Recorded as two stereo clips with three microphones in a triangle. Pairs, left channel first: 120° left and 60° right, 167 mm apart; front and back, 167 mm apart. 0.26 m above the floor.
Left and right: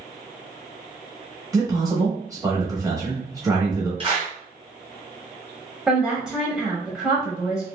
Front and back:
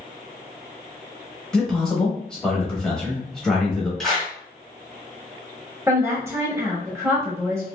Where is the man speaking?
80° right, 0.9 m.